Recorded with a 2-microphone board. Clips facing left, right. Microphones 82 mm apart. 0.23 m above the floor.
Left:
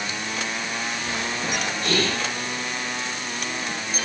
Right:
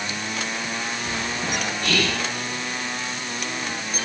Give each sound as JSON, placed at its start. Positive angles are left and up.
{"t": 1.8, "sound": "whispering", "side_deg": 30, "distance_m": 2.5}